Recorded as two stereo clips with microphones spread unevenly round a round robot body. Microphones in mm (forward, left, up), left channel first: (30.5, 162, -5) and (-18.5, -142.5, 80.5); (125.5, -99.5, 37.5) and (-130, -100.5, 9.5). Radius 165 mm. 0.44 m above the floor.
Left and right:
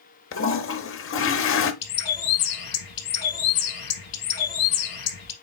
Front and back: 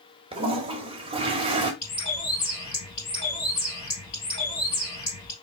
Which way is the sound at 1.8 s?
65° left.